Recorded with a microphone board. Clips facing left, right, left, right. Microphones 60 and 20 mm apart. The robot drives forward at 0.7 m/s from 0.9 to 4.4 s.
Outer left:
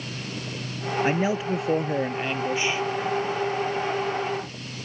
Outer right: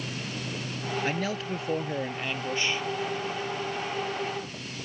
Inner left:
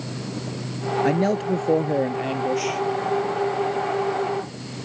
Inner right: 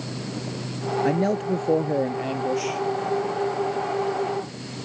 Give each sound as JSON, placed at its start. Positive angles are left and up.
{"t": 1.0, "sound": "a man speaking", "side_deg": 20}